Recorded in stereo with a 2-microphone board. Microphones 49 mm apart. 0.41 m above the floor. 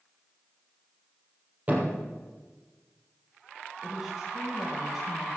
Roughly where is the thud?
Right.